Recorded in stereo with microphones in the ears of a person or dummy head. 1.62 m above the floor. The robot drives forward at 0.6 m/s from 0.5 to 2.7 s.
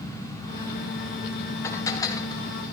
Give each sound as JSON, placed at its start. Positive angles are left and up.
{"t": 1.6, "sound": "dishes clattering", "side_deg": 20, "distance_m": 1.7}